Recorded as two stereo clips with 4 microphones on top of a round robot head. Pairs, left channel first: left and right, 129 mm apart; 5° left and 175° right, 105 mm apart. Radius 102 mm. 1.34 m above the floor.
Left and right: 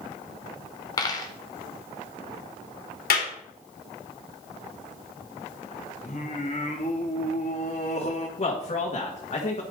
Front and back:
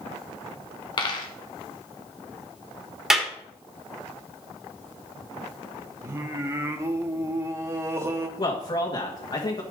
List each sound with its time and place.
1.0 s a dropped coin: 35° left, 1.3 m
3.1 s a clap: 100° left, 2.5 m
6.0 s singing: 135° left, 0.9 m
8.4 s a man speaking: 50° left, 1.9 m